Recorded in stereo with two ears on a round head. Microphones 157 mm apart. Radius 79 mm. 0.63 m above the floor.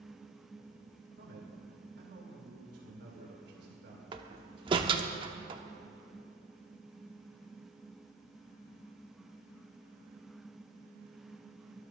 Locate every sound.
1.2 s a man speaking: 65° right (ahead or behind), 2.5 m
4.1 s a door slam: 25° right (ahead or behind), 0.9 m